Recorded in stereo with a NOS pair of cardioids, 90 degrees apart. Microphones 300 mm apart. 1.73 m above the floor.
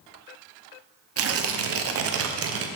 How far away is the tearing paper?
About 0.8 m.